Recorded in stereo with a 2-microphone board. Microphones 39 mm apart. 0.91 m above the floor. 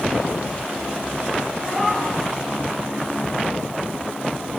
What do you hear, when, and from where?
1.6 s a cat meowing: 10° left (ahead or behind), 5.5 m